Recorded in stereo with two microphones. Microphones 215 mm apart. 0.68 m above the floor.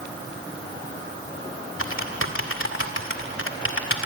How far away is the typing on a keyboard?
About 2 m.